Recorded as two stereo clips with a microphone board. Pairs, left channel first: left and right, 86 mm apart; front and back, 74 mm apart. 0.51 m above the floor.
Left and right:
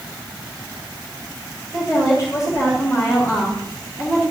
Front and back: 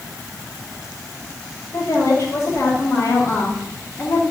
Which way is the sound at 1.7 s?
45° left.